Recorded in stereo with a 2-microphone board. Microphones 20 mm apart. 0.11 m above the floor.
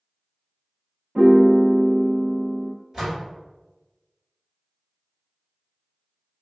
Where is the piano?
60° right (ahead or behind), 1.4 m.